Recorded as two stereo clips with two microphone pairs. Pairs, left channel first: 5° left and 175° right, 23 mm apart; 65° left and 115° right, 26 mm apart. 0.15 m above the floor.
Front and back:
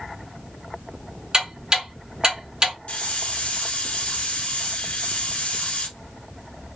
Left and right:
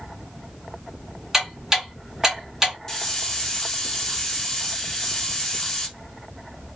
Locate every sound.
1.3 s ticking: straight behind, 1.6 m
2.9 s a hiss: straight ahead, 0.9 m